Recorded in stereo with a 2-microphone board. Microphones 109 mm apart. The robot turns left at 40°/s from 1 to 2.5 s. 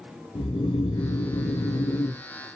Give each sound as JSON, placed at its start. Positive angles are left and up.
{"t": 0.3, "sound": "snoring", "azimuth_deg": 105, "distance_m": 1.0}